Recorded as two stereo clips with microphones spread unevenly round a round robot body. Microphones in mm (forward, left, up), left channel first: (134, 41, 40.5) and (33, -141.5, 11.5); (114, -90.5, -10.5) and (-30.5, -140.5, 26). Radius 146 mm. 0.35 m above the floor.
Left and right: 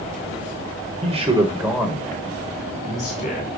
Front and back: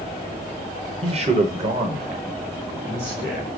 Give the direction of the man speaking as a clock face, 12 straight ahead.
4 o'clock.